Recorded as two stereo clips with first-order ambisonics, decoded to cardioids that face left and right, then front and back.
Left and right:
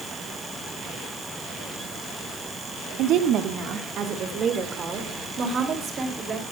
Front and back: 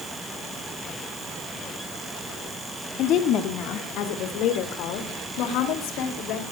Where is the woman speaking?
50° right, 1.6 m; by 6.4 s 25° right, 4 m.